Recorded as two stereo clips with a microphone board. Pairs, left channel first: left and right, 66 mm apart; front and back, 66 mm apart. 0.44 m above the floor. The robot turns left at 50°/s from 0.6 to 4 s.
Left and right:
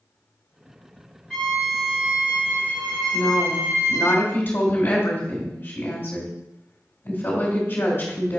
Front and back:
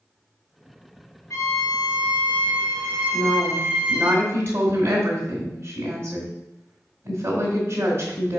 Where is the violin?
15° left, 2.5 m; by 4.1 s 120° right, 2.5 m.